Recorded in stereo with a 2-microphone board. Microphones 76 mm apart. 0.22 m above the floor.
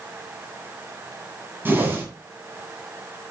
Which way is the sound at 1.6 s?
30° right (ahead or behind).